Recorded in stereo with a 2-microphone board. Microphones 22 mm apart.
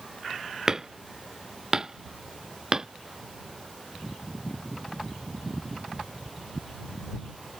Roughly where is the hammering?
Right.